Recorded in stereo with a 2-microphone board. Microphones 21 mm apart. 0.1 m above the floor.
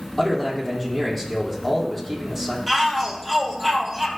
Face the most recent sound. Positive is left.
turn(degrees=5)  # may be behind; listen again after turning